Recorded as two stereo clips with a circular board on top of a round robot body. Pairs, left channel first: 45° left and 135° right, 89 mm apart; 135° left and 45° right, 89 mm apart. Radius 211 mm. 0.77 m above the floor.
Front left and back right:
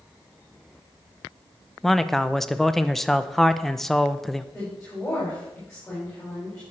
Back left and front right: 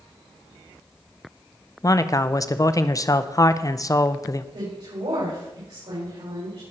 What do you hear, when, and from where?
1.8 s a man speaking: 130° left, 0.9 m
4.5 s a woman speaking: 35° right, 5.5 m